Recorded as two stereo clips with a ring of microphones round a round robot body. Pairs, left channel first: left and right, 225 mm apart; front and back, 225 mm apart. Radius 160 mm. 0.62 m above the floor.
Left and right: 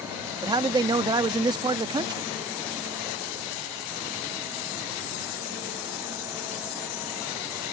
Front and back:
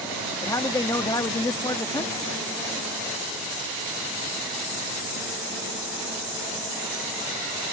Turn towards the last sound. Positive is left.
turn(degrees=-50)